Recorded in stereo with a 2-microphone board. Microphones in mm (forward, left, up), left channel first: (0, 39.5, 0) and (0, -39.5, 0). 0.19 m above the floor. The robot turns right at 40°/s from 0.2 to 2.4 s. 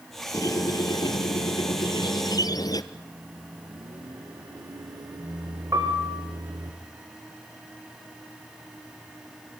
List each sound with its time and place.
0.3 s a squeak: 40° left, 1.1 m; by 2.8 s 125° left, 1.1 m
2.9 s a microwave: 60° right (ahead or behind), 2 m
5.7 s a piano: 45° right (ahead or behind), 5 m